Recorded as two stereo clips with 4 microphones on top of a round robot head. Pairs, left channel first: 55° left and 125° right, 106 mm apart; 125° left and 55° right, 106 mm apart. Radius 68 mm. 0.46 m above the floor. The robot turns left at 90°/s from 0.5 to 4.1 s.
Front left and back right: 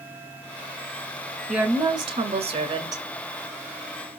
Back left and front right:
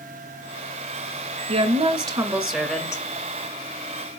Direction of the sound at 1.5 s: 45° right.